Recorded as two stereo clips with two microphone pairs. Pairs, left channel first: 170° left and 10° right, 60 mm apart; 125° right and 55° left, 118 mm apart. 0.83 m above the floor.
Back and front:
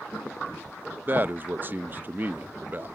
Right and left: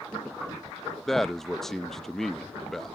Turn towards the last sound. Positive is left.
turn(degrees=-40)